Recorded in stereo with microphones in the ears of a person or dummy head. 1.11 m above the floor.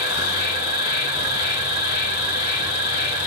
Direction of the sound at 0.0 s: 75° left (ahead or behind).